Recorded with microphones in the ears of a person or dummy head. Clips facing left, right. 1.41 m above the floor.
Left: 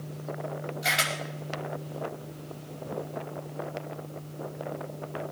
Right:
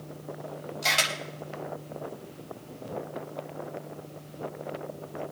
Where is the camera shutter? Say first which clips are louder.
Right 3 dB; 65° right (ahead or behind), 5 m.